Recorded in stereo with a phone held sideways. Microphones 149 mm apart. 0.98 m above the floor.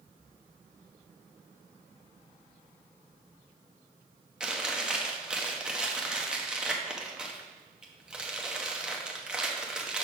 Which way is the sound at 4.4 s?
5° right (ahead or behind).